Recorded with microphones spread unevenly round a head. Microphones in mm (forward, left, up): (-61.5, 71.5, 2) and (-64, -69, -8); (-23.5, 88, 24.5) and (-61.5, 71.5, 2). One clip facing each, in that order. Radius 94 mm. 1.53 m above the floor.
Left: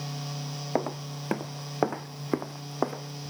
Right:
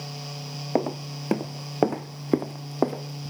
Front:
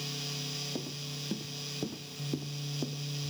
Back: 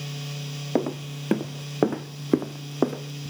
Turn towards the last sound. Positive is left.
turn(degrees=-150)